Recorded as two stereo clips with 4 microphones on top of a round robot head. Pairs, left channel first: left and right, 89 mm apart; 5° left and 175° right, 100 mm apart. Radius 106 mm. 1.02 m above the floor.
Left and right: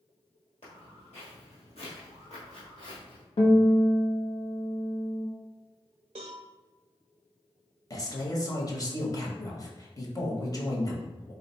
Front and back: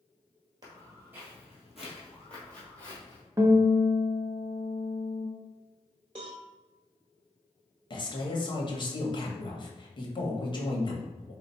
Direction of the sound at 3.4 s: 120° left.